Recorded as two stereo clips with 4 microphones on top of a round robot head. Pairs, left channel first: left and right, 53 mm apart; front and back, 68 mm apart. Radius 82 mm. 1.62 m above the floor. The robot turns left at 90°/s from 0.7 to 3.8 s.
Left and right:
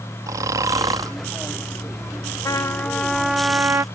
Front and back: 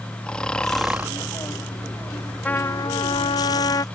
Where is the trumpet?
70° left; by 3.8 s 50° right.